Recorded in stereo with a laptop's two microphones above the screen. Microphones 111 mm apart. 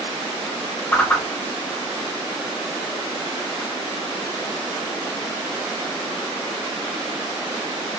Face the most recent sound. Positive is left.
turn(degrees=15)  # may be behind; listen again after turning